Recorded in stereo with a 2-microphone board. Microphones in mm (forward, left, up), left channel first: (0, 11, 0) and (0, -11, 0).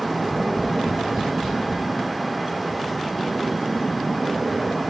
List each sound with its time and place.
0.2 s tapping: 20° left (ahead or behind), 1.5 m